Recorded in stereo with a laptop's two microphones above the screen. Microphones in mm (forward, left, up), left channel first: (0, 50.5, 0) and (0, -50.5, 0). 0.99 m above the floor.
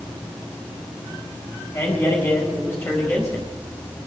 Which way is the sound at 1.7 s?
30° left (ahead or behind).